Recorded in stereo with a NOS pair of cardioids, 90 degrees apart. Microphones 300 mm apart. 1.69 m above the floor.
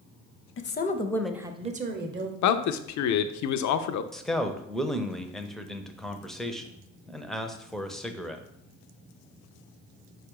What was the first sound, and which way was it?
A woman speaking, 45° left.